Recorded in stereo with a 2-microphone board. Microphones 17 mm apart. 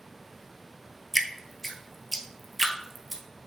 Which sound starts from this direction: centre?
Dripping, at 1.1 s.